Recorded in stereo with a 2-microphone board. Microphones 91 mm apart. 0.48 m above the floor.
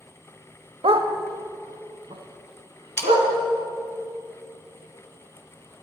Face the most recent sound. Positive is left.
turn(degrees=25)  # may be behind; listen again after turning